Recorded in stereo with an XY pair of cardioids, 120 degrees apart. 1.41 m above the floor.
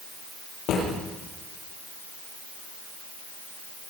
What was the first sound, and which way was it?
A drawer, 70° left.